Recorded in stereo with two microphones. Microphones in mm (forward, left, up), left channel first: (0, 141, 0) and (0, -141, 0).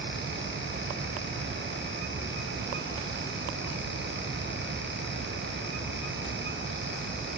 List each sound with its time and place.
Only background noise.